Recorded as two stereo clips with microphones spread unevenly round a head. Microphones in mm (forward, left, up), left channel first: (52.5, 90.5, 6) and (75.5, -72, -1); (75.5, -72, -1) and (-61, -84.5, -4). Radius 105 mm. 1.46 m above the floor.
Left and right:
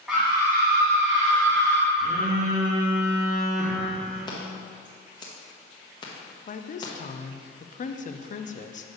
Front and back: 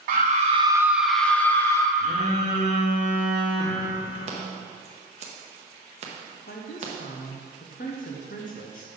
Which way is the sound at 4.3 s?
155° left.